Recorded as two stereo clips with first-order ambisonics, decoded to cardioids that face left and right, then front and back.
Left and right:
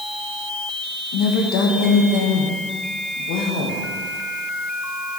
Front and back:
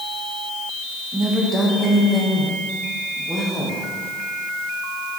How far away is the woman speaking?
About 2 m.